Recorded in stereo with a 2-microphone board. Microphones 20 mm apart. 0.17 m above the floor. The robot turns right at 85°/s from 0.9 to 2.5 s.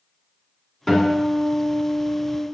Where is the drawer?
No drawer in this recording.